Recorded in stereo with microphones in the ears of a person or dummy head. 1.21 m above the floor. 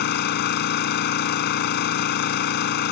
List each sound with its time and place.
0.0 s an engine running: 60° left (ahead or behind)